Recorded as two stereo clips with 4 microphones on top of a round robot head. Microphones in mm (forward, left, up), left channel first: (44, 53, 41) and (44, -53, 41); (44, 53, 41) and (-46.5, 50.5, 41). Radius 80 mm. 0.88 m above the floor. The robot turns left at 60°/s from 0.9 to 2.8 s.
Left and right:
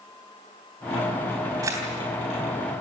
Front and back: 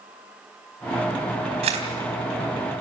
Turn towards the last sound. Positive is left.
turn(degrees=135)